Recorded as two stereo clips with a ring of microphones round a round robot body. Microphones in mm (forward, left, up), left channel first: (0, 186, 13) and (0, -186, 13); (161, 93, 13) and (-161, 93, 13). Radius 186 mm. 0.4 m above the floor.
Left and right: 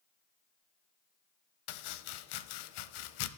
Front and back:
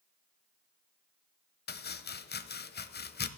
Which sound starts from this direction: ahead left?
Chopping, at 1.7 s.